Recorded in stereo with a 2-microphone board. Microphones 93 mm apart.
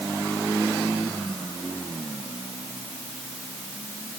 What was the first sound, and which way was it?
Only background noise.